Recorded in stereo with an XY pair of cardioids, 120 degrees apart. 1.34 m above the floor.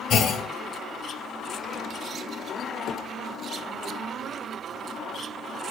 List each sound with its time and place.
0.1 s a clunk: 55° left, 1.6 m